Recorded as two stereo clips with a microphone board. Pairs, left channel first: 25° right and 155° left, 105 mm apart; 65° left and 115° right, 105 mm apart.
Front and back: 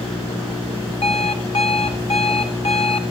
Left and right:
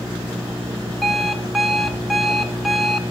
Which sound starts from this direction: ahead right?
An alarm clock, at 1.0 s.